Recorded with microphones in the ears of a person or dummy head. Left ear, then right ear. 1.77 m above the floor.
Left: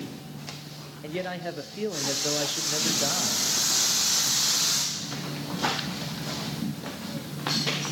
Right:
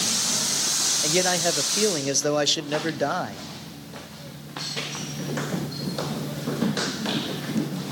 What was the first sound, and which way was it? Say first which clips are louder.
A man speaking: right 7 dB; 85° right.